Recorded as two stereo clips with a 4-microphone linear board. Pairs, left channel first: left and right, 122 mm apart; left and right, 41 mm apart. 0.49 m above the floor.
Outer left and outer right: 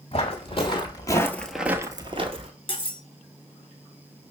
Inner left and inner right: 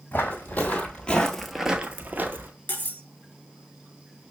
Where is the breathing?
I don't hear breathing.